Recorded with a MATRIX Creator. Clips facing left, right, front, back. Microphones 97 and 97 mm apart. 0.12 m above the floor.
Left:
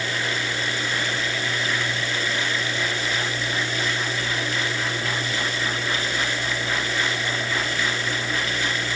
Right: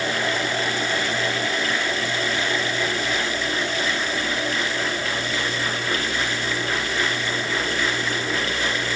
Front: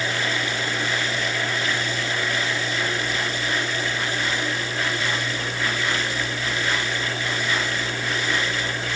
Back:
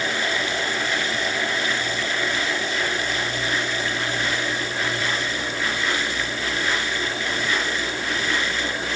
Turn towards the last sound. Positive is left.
No sound to turn to.